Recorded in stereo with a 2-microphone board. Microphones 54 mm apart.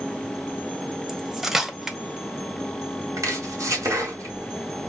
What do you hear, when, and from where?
1.1 s cutlery clinking: 5° right (ahead or behind), 0.7 m
3.2 s chopping: 85° right, 1.9 m